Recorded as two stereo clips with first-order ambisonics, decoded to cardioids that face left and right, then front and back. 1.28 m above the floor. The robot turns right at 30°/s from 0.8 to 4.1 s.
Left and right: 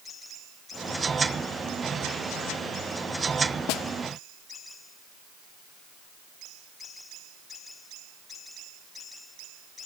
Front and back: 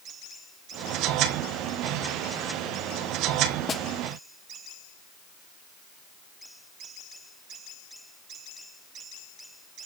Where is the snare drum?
70° left, 0.9 m; by 3.8 s 75° left, 0.9 m.